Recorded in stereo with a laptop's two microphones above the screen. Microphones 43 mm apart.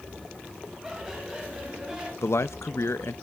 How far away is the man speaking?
About 0.7 m.